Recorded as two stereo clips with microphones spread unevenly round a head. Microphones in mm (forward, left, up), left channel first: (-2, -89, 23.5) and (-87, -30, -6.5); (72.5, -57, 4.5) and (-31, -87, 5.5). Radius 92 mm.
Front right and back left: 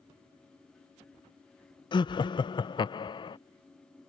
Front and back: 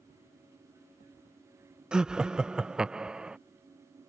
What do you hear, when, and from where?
1.9 s laughter: 85° right